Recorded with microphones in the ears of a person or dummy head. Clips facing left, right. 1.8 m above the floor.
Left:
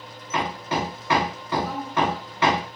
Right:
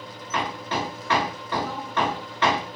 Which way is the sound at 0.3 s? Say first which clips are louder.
Left 2 dB; 15° left (ahead or behind).